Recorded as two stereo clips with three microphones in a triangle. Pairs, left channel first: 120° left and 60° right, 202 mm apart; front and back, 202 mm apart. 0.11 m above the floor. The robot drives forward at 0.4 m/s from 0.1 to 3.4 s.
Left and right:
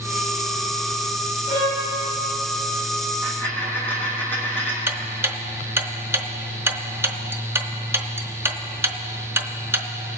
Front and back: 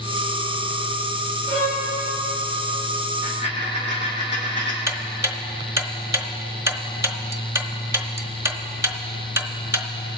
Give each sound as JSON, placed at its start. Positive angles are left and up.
{"t": 1.5, "sound": "a violin", "azimuth_deg": 135, "distance_m": 3.0}
{"t": 3.2, "sound": "a dropped coin", "azimuth_deg": -160, "distance_m": 2.0}
{"t": 4.9, "sound": "ticking", "azimuth_deg": -125, "distance_m": 0.6}